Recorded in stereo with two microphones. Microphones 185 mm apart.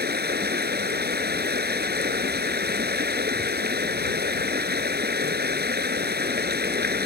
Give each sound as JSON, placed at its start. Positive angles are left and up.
{"t": 0.0, "sound": "running water", "side_deg": -60}